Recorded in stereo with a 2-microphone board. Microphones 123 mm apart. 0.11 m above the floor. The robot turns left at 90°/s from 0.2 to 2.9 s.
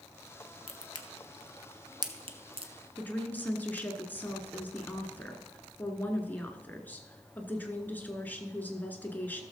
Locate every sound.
0.7 s a crack: 50° left (ahead or behind), 1.0 m; by 2.7 s 50° right (ahead or behind), 1.0 m
3.0 s a woman speaking: 15° left (ahead or behind), 1.3 m